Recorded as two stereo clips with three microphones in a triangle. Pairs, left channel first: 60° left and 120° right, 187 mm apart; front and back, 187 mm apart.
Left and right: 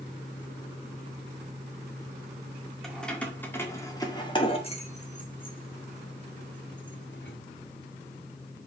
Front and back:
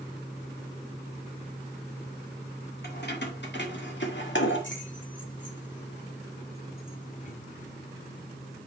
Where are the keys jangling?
30° right, 2 m; by 7.4 s 50° left, 2 m.